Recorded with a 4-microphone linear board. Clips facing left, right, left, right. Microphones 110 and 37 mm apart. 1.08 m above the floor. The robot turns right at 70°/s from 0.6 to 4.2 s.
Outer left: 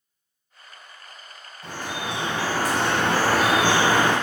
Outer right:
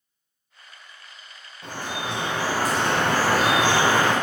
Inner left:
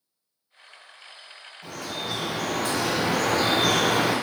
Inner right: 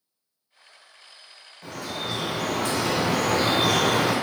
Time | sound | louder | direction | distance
1.6 | dripping | even, inner right 1 dB | 75° right | 1.2 m